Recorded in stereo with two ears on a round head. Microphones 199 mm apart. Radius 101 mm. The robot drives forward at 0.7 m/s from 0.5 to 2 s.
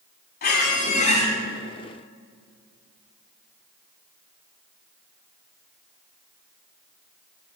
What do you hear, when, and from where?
0.4 s a squeak: 45° left (ahead or behind), 1.2 m; by 1.3 s 30° left (ahead or behind), 1.7 m